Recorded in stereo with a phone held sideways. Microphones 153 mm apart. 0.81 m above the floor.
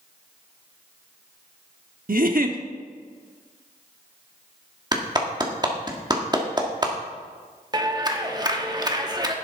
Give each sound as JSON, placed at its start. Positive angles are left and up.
{"t": 2.1, "sound": "a giggle", "side_deg": -65, "distance_m": 0.9}
{"t": 4.9, "sound": "a clap", "side_deg": -25, "distance_m": 1.7}
{"t": 7.7, "sound": "a clap", "side_deg": -25, "distance_m": 1.2}